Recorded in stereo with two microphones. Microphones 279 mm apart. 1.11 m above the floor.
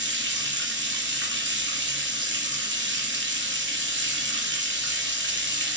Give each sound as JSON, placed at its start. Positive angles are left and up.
{"t": 0.0, "sound": "running water", "side_deg": -40, "distance_m": 2.0}